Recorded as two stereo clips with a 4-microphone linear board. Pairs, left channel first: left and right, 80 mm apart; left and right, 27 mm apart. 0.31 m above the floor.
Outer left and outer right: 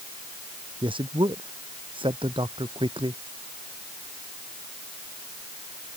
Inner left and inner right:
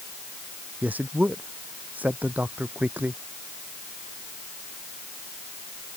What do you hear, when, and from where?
0.8 s a man speaking: 85° right